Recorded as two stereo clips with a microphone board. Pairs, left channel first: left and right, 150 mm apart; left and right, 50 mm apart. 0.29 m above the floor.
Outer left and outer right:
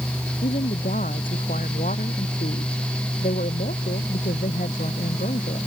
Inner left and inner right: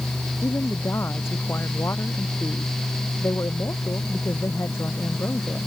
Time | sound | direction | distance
0.4 | a woman speaking | 65° left (ahead or behind) | ?